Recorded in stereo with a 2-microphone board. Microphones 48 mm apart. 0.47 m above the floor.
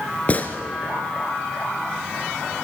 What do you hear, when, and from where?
0.3 s a gunshot: 35° left (ahead or behind), 1.3 m